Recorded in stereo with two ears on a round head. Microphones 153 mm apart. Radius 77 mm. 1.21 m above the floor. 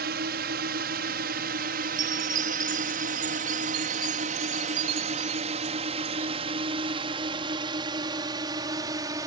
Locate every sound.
0.0 s a drone: 60° right (ahead or behind); by 9.3 s 20° right (ahead or behind)
2.0 s a chime: 50° right (ahead or behind)